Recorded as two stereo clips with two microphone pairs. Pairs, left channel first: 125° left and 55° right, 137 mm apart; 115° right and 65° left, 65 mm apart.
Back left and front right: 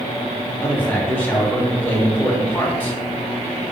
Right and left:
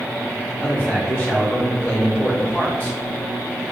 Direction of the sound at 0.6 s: 165° right.